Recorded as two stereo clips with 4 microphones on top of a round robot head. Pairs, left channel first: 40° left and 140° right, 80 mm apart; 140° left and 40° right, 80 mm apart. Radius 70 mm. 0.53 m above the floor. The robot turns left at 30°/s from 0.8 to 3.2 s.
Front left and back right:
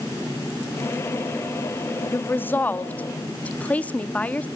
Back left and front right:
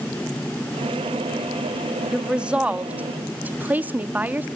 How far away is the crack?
No crack in this recording.